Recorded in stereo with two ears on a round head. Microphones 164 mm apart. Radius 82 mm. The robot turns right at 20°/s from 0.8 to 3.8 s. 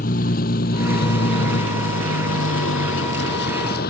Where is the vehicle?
45° left (ahead or behind); by 3.9 s 55° left (ahead or behind).